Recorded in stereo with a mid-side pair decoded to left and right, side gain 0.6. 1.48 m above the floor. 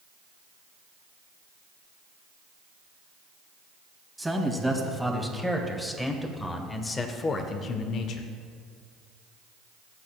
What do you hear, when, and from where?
4.2 s a man speaking: 10° right, 2.5 m; by 8.3 s 65° left, 0.9 m